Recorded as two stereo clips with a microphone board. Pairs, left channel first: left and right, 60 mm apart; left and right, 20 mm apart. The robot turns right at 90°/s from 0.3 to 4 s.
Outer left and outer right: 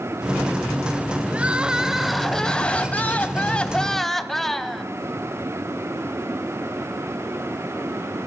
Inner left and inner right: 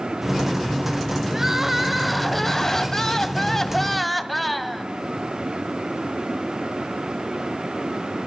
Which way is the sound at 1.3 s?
20° right (ahead or behind).